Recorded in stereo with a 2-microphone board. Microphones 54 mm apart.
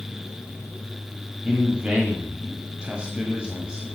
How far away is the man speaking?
About 1.3 m.